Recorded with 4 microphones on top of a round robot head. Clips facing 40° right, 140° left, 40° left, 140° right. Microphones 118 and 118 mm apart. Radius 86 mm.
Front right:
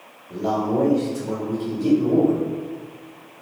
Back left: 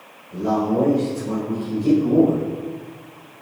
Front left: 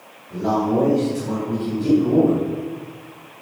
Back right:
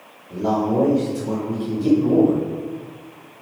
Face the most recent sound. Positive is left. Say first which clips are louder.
# back left 2 dB, even
turn(degrees=-75)